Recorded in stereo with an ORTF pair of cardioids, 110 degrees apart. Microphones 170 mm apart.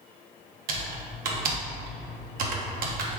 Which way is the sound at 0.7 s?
60° right.